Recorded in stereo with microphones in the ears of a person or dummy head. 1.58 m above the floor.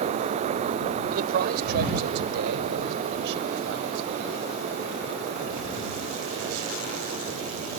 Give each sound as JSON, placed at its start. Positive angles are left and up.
{"t": 1.1, "sound": "a man speaking", "side_deg": -50}